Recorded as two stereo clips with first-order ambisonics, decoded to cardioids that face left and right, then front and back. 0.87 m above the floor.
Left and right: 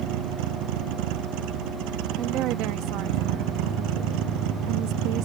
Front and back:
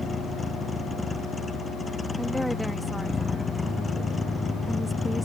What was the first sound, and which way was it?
A vehicle, 75° right.